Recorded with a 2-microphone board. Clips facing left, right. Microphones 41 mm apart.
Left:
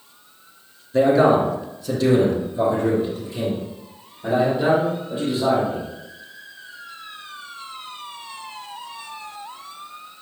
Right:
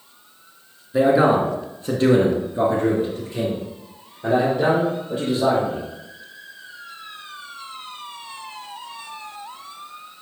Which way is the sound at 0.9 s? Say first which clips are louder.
Left 1 dB; 15° right (ahead or behind).